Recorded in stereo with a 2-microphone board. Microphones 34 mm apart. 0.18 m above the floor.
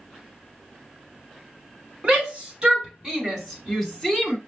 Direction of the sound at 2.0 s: 30° right (ahead or behind).